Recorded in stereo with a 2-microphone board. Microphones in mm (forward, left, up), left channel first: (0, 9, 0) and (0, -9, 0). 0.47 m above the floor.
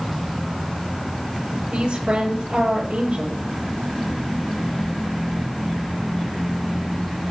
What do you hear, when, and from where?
1.7 s a woman speaking: 85° right, 10 m